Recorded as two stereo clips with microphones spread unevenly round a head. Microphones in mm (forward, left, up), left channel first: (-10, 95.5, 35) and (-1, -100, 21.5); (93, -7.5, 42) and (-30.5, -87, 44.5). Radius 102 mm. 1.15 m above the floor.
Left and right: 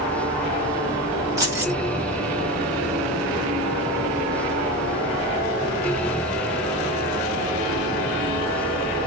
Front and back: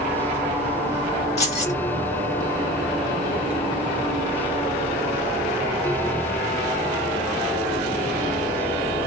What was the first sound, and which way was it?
Keys jangling, 10° right.